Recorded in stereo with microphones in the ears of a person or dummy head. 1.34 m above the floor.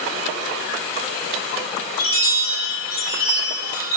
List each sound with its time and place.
2.0 s a chime: 75° left (ahead or behind), 4 m